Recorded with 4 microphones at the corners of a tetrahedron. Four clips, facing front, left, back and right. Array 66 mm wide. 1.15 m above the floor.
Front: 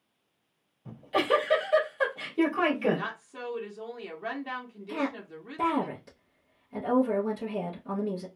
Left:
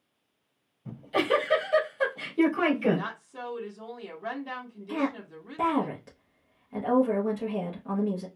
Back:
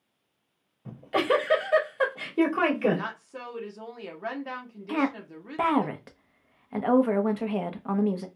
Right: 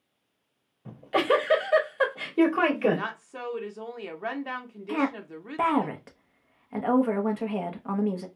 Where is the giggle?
125° right, 2 m.